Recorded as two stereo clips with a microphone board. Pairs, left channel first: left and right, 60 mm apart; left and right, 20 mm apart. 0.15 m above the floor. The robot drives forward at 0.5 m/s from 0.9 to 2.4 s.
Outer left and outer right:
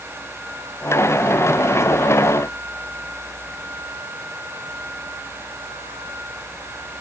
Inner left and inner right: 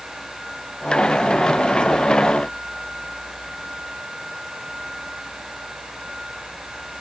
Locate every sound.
Only background noise.